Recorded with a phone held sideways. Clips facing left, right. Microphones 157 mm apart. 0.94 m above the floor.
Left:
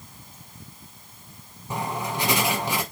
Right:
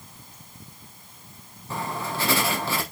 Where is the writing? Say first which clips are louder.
Left 2 dB; 15° left (ahead or behind), 1.2 m.